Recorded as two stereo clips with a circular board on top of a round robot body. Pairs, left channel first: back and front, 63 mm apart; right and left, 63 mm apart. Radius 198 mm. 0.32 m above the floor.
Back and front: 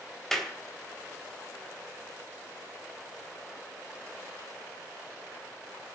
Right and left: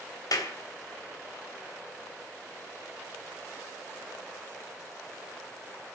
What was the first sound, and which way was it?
A clap, 95° right.